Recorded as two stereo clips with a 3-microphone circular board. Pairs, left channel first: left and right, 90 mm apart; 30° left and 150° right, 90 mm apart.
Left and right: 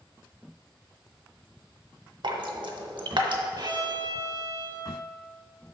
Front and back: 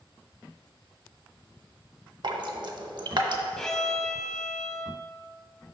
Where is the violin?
55° right, 0.6 m.